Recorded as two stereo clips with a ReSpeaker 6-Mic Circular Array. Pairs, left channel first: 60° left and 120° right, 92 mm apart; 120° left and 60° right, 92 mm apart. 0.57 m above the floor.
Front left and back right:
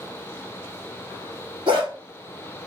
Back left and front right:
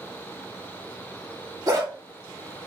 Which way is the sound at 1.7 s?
105° right.